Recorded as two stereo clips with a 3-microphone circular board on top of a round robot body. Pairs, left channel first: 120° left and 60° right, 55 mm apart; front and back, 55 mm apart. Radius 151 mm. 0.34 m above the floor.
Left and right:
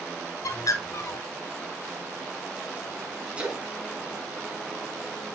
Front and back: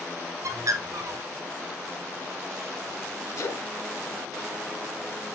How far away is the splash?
About 2.5 m.